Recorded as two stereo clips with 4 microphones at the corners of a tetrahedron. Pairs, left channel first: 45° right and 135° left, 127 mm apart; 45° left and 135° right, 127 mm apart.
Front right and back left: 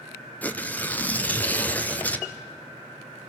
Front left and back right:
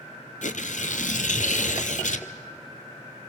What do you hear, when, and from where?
0.4 s tearing paper: 35° left, 1.1 m